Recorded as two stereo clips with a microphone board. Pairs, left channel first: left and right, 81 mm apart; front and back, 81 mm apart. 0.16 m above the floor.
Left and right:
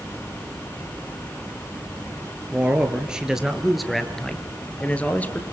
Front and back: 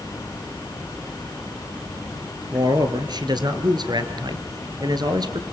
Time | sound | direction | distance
2.5 | a man speaking | 160° right | 3 m